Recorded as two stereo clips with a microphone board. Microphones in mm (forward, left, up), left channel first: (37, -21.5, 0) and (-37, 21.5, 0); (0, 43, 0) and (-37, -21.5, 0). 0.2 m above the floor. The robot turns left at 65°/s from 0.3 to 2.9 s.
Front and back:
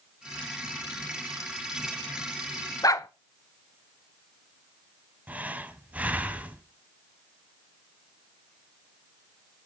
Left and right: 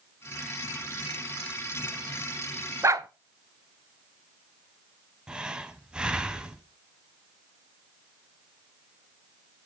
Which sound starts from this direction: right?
A dog barking, at 2.8 s.